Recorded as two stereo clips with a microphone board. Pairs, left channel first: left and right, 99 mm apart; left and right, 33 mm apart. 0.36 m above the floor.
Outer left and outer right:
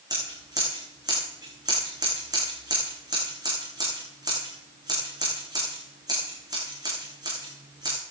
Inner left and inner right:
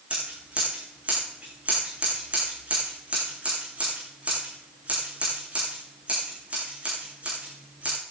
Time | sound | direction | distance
0.1 | scissors | 40° right (ahead or behind) | 8.5 m